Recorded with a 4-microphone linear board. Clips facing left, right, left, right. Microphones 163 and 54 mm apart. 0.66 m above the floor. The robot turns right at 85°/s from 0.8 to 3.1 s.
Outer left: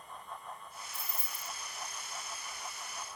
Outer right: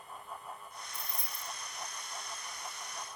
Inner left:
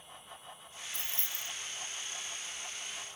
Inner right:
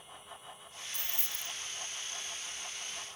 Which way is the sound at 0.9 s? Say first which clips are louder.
Even, even; 175° right.